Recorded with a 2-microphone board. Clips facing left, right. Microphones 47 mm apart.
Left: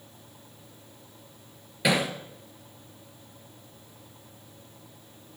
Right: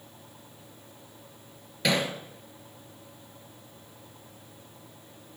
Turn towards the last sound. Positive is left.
turn(degrees=15)  # may be behind; listen again after turning